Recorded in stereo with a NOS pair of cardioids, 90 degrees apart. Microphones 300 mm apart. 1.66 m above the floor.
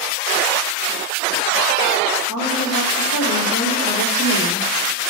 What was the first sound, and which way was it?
A woman speaking, 70° left.